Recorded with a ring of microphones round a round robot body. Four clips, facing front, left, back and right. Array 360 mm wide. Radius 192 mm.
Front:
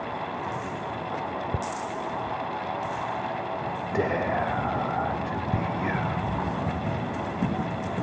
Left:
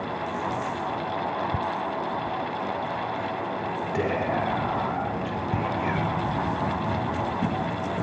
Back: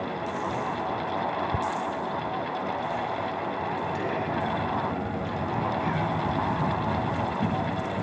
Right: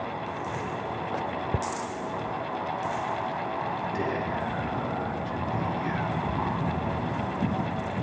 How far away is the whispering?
About 3.5 m.